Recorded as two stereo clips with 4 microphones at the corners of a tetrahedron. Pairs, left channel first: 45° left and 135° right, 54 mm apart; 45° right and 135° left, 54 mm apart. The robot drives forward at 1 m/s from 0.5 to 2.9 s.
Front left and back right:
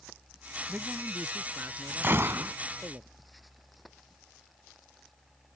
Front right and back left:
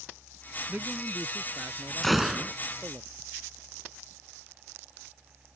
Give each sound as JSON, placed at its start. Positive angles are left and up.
{"t": 0.7, "sound": "a man speaking", "azimuth_deg": -170}
{"t": 2.0, "sound": "a gunshot", "azimuth_deg": -125}